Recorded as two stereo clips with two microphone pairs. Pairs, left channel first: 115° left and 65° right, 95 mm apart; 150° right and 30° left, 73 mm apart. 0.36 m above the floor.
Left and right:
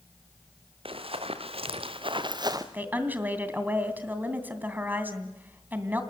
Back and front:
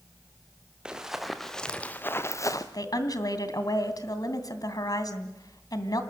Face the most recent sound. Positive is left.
turn(degrees=-130)